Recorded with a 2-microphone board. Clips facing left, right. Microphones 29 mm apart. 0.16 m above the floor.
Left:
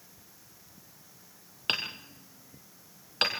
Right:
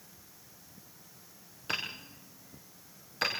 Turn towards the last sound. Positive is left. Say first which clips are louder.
# left 4 dB
turn(degrees=65)  # may be behind; listen again after turning